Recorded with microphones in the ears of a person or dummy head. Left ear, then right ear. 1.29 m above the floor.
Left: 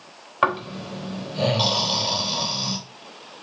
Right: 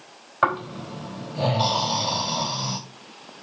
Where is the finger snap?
No finger snap in this recording.